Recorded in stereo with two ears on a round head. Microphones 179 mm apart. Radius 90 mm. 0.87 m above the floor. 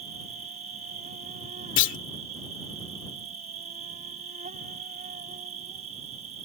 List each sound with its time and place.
0.0 s an insect: 40° right (ahead or behind)
1.8 s a clunk: 60° left (ahead or behind)